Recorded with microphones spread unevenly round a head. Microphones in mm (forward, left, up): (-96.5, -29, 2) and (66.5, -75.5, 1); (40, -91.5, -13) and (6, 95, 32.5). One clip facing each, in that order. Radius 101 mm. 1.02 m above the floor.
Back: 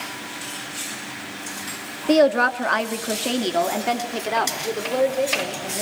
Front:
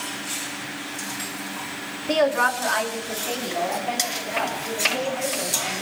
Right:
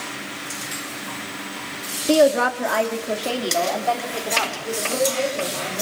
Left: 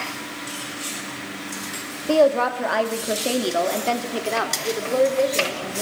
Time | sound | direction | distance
2.1 | a woman speaking | 150° right | 2 m